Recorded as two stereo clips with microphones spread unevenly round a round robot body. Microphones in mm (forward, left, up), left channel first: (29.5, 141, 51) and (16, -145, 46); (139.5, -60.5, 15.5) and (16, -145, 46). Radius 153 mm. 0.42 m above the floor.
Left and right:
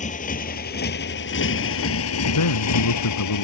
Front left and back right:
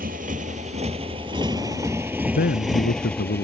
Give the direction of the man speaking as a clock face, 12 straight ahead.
10 o'clock.